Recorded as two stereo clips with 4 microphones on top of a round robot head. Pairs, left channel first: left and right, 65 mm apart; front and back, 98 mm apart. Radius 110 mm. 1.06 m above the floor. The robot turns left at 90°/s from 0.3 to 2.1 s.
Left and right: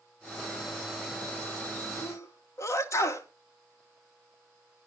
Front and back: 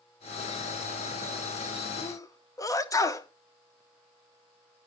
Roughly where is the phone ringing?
I don't hear a phone ringing.